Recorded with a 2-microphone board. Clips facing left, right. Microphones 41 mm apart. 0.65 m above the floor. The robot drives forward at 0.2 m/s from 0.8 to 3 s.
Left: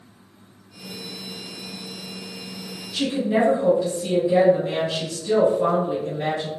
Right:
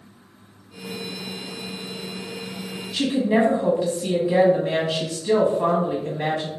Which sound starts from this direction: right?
A woman speaking, at 2.9 s.